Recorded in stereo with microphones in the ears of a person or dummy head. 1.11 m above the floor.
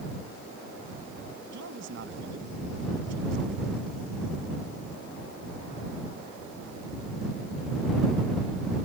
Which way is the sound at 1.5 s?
75° right (ahead or behind).